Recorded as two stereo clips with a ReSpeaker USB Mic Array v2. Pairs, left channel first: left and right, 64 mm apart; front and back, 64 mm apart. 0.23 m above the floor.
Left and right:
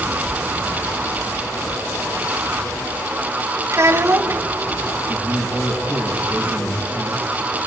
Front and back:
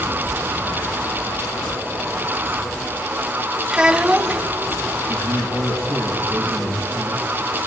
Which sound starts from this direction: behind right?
A man speaking, at 5.1 s.